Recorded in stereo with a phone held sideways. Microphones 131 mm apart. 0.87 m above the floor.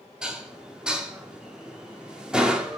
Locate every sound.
0.2 s dishes clattering: 5° right (ahead or behind), 1.0 m